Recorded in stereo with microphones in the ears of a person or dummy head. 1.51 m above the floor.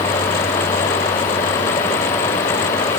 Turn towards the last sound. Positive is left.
No sound to turn to.